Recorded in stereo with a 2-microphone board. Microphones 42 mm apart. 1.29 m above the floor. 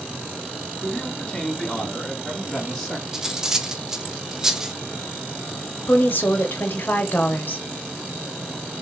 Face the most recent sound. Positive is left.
turn(degrees=50)  # may be behind; listen again after turning